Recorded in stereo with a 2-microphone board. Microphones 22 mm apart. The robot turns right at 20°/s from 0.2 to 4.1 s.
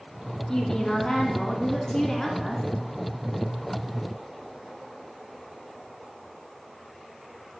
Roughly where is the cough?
I don't hear a cough.